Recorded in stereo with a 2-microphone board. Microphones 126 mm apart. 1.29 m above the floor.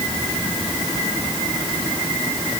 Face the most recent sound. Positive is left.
No sound to turn to.